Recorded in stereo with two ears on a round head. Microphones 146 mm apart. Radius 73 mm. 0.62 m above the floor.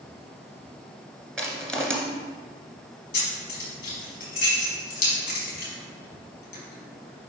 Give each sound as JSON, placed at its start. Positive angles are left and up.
{"t": 1.4, "sound": "crushing", "side_deg": 5, "distance_m": 1.8}
{"t": 3.1, "sound": "keys jangling", "side_deg": 60, "distance_m": 4.0}